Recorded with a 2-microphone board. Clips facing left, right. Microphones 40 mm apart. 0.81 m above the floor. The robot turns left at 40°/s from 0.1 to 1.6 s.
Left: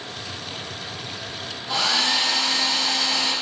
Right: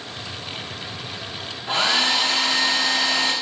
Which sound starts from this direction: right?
A hair dryer, at 1.7 s.